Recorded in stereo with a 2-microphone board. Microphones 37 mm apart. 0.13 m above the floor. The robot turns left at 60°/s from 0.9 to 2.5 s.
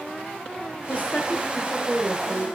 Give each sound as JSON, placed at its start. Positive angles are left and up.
{"t": 0.9, "sound": "a woman speaking", "azimuth_deg": 50, "distance_m": 5.5}